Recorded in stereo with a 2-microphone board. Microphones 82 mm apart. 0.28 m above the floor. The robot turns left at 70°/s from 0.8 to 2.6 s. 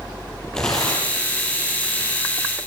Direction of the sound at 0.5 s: 10° left (ahead or behind).